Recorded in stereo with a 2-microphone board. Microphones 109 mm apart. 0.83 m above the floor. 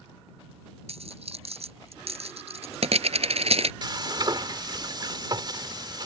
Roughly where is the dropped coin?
Right.